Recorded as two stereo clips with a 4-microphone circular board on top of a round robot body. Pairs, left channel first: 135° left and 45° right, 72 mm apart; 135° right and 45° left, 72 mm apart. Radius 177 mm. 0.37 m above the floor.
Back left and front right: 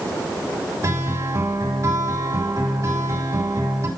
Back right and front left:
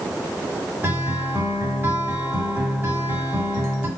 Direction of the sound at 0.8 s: 20° right.